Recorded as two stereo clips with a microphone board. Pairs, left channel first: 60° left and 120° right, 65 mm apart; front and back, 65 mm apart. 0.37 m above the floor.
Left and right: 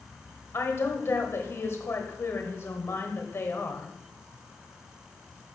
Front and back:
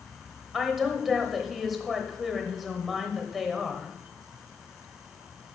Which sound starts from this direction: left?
A woman speaking, at 0.5 s.